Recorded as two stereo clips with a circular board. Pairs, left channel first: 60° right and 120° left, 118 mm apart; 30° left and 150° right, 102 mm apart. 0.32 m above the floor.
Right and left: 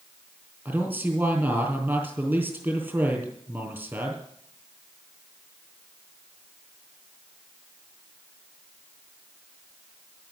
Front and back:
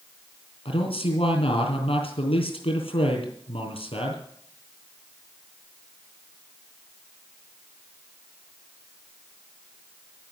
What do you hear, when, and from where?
0.7 s a man speaking: 50° left, 3.5 m